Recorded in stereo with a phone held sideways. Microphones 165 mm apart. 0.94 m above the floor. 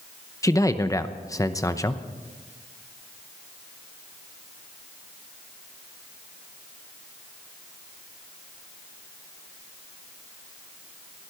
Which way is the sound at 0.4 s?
20° left (ahead or behind).